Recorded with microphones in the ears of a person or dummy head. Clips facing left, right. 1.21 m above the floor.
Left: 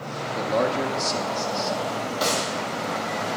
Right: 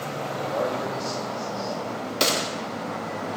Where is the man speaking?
65° left (ahead or behind), 1.6 m.